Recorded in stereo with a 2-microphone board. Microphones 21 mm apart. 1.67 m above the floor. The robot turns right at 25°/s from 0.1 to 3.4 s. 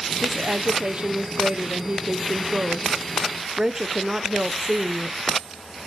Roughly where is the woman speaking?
Behind right.